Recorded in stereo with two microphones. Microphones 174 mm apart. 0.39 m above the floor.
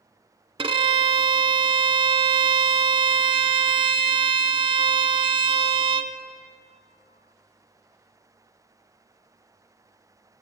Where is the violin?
30° right (ahead or behind), 0.5 m.